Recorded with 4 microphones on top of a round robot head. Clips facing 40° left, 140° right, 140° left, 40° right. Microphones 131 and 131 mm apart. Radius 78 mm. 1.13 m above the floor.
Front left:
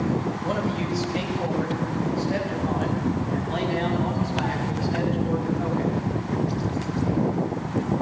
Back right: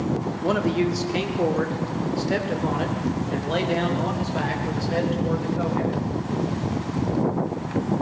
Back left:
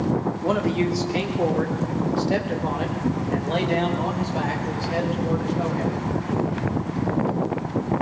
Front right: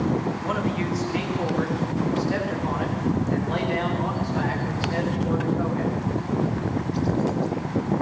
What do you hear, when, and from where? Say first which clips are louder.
0.4 s a man speaking: back right 4 dB, back left 4 dB; 165° right, 3 m; by 6.0 s 150° right, 6.5 m